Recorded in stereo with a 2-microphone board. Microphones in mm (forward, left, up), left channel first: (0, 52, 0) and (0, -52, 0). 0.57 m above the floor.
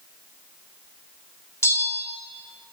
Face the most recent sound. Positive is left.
turn(degrees=30)  # may be behind; listen again after turning